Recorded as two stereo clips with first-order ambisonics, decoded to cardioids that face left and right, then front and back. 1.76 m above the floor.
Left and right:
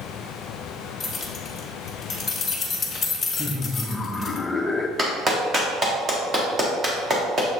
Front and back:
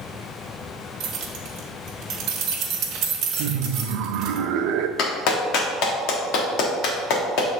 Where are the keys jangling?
160° left, 1.0 m.